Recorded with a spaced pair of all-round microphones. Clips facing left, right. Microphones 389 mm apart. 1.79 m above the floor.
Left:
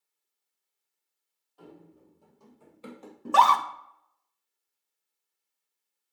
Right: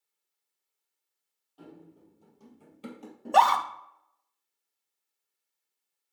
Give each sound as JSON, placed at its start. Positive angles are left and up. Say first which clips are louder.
{"t": 1.6, "sound": "running footsteps", "louder": "right 1 dB", "side_deg": -50, "distance_m": 3.0}
{"t": 3.2, "sound": "a scream", "louder": "right 1 dB", "side_deg": 15, "distance_m": 0.9}